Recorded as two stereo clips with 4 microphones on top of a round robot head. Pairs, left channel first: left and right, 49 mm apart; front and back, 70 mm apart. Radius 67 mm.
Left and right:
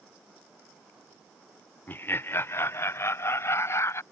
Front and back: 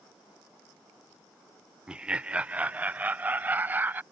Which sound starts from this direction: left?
Laughter, at 1.9 s.